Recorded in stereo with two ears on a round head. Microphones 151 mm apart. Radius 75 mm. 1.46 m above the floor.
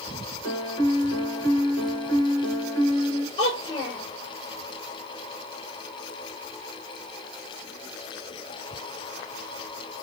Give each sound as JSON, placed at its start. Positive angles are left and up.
{"t": 0.4, "sound": "a piano", "side_deg": 20, "distance_m": 2.5}
{"t": 3.4, "sound": "a child speaking", "side_deg": 35, "distance_m": 4.0}